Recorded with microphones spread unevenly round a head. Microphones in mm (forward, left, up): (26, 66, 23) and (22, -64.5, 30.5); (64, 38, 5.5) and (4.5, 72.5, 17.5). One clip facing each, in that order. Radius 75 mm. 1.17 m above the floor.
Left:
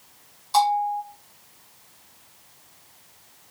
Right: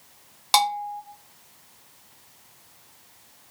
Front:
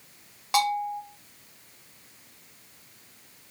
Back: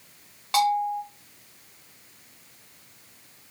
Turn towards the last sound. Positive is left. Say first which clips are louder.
# left 4 dB, back 3 dB
turn(degrees=-115)